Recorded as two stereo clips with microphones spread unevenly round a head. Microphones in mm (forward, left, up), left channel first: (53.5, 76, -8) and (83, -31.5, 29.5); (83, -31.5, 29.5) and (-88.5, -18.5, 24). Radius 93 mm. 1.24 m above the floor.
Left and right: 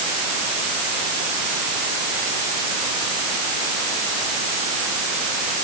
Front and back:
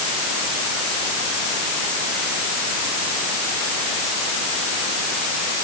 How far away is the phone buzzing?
I don't hear a phone buzzing.